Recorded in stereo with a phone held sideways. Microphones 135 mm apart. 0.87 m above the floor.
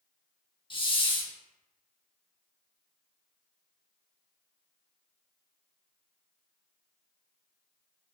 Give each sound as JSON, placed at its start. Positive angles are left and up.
{"t": 0.7, "sound": "a hiss", "side_deg": 40, "distance_m": 0.7}